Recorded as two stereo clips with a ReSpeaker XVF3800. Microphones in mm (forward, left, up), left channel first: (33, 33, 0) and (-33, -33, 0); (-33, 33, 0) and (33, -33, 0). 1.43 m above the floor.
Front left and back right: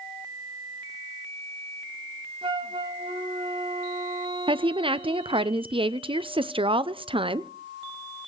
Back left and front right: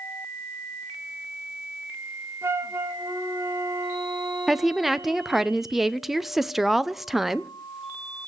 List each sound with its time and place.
2.4 s a flute: 110° right, 1.7 m
4.5 s a woman speaking: 135° right, 0.6 m